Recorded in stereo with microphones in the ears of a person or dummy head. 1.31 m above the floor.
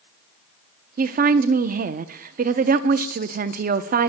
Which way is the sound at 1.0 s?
40° right (ahead or behind).